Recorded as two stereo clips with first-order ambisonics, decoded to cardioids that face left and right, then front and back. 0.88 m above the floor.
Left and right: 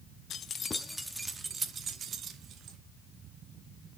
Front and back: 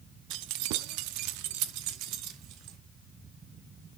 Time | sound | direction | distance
0.3 | keys jangling | 150° left | 0.7 m